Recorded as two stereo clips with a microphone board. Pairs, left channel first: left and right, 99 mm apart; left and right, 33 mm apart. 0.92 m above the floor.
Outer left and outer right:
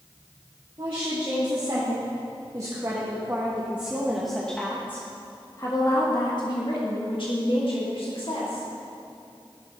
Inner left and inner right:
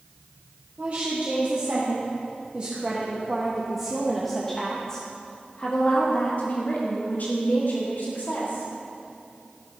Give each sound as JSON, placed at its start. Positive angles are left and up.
{"t": 0.8, "sound": "a woman speaking", "side_deg": -50, "distance_m": 2.5}